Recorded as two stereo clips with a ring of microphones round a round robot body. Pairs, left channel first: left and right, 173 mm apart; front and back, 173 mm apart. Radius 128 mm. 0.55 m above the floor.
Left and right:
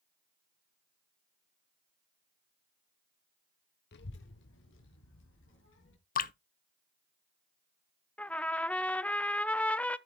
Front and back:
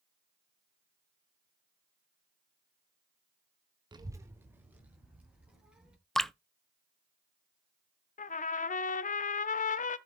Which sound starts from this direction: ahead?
A trumpet, at 8.2 s.